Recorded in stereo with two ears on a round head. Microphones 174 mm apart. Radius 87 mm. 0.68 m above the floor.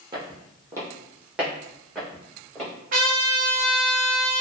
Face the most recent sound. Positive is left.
turn(degrees=-45)  # may be behind; listen again after turning